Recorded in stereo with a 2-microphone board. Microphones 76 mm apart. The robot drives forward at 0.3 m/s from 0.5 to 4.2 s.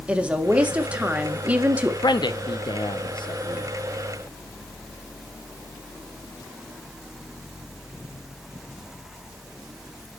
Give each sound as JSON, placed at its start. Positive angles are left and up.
{"t": 0.1, "sound": "a woman speaking", "side_deg": -15, "distance_m": 1.9}
{"t": 2.0, "sound": "a man speaking", "side_deg": 60, "distance_m": 0.9}